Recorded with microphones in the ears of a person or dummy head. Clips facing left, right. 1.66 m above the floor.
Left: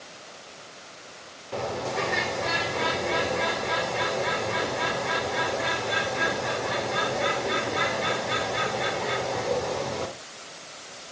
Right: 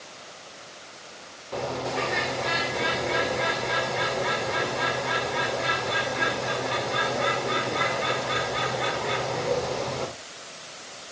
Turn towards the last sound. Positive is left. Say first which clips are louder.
# even
turn(degrees=5)  # may be behind; listen again after turning